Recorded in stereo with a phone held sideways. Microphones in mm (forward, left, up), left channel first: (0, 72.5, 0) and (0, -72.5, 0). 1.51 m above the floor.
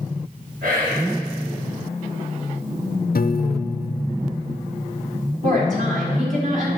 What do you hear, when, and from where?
0.6 s whispering: 85° right, 4 m
3.1 s a piano: 75° left (ahead or behind), 0.6 m
5.4 s a woman speaking: 60° right (ahead or behind), 4.5 m